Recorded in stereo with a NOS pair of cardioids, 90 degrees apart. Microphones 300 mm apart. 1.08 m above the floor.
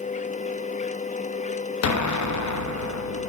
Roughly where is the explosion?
Left.